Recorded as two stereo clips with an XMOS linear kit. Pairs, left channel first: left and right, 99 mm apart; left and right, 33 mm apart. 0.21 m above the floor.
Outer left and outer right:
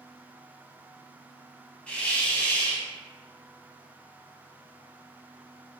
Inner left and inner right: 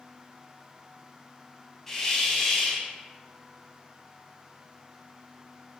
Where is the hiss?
15° left (ahead or behind), 0.6 m.